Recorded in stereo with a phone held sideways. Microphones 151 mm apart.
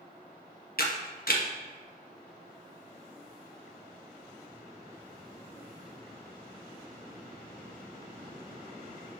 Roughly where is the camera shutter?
Left.